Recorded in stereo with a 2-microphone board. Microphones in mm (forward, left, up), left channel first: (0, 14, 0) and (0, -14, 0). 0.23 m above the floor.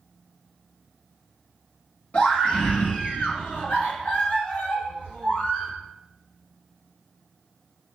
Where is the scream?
55° left (ahead or behind), 2.5 m; by 5.7 s 70° left (ahead or behind), 3.5 m.